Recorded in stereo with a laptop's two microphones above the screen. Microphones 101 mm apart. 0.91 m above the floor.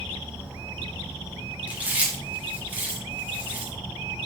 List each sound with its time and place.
0.0 s an insect: 20° right (ahead or behind), 2.5 m
1.7 s chewing: 15° right (ahead or behind), 0.8 m